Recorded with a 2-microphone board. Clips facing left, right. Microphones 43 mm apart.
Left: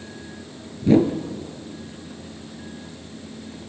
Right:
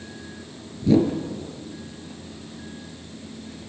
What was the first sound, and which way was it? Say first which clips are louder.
A whoosh: left 2 dB; 45° left (ahead or behind).